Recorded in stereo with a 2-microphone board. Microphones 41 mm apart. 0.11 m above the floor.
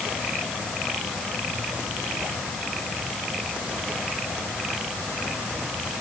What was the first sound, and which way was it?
Only background noise.